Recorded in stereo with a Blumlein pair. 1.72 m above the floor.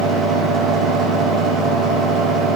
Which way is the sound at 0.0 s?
20° right.